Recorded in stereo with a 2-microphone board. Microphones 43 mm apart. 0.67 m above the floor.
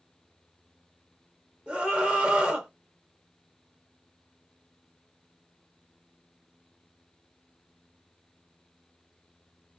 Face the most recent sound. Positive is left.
turn(degrees=-25)  # may be behind; listen again after turning